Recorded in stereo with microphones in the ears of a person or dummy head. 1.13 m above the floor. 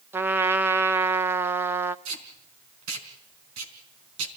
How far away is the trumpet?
About 0.8 m.